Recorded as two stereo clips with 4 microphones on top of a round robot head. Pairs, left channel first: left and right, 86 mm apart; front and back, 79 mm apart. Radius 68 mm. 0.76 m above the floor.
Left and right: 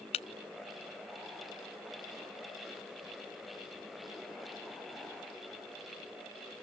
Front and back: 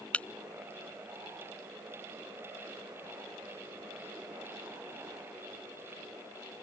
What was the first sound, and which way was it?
Breaking glass, 75° left.